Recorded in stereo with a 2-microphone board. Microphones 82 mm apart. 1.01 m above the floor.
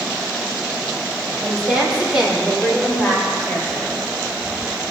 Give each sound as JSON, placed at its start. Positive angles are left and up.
{"t": 1.4, "sound": "a woman speaking", "side_deg": -20, "distance_m": 3.5}